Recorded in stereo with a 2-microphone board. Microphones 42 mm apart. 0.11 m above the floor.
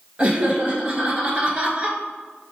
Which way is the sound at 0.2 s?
30° right (ahead or behind).